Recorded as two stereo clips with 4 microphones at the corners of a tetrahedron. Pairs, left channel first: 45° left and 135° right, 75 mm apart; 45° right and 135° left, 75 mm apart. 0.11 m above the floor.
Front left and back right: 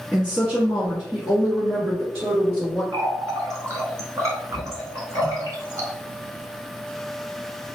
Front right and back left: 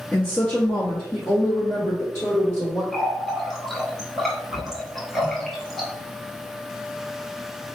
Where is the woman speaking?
80° right, 1.4 m; by 2.8 s 85° right, 2.5 m.